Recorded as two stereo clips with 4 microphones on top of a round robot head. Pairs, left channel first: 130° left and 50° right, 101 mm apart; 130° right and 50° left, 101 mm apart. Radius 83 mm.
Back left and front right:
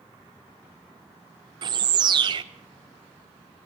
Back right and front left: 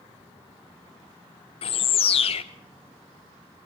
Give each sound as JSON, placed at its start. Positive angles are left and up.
{"t": 1.6, "sound": "a bird", "azimuth_deg": -95, "distance_m": 1.0}